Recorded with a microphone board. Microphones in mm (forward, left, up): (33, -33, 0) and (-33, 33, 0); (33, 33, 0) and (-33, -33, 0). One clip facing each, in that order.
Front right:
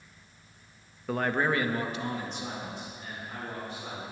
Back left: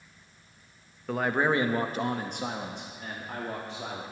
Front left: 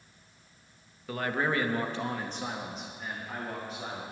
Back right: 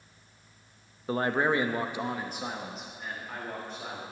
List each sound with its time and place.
1.1 s a man speaking: 130° right, 0.6 m; by 4.0 s 130° left, 1.7 m